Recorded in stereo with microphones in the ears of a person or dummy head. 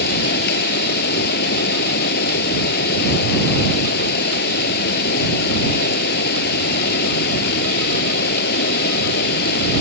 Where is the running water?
65° left (ahead or behind).